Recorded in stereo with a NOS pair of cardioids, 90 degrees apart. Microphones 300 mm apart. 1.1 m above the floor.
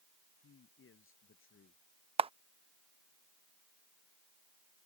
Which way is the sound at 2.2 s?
20° right.